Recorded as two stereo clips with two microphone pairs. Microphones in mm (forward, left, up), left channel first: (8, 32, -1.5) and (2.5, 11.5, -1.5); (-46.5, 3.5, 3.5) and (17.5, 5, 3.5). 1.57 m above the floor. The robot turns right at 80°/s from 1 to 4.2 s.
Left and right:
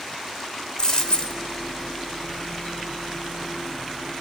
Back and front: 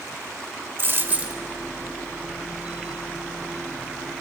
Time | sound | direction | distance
0.8 | a dropped coin | 40° left | 1.8 m